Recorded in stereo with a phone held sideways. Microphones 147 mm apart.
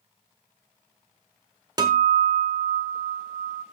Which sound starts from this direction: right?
A guitar, at 1.8 s.